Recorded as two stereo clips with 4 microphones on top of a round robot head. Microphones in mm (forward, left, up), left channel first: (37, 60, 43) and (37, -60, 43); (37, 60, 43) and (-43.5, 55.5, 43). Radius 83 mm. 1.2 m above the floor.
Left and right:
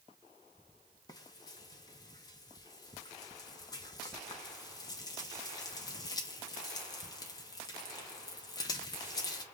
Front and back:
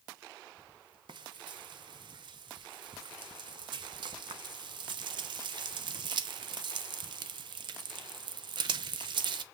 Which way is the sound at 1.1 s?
155° left.